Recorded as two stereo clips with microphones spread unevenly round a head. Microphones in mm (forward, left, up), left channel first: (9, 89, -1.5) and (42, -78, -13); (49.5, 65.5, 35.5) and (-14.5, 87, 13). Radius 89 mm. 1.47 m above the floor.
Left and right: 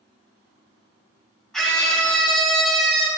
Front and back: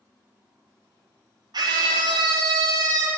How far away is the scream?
About 1.9 m.